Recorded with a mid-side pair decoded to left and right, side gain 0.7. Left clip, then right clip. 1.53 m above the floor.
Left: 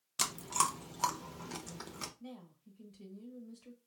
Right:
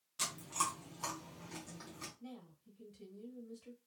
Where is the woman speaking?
5° left, 1.5 m.